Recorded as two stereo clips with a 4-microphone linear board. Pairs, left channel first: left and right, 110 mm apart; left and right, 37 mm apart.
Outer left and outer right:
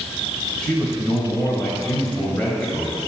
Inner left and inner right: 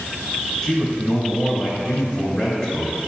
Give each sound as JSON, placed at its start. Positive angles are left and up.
{"t": 0.6, "sound": "a man speaking", "side_deg": 10, "distance_m": 2.0}